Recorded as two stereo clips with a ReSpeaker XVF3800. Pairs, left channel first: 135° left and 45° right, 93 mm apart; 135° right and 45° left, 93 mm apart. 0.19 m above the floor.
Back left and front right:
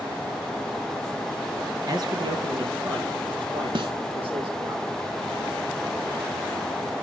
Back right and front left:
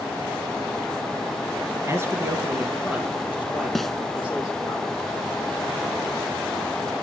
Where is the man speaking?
10° right, 2.5 m; by 4.8 s 35° right, 6 m.